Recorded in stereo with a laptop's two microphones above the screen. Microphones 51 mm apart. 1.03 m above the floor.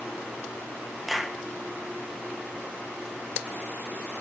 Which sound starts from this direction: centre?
A clap, at 1.1 s.